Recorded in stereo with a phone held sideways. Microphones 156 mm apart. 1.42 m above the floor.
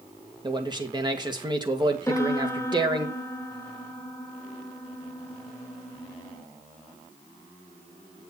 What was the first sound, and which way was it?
A man speaking, 30° right (ahead or behind).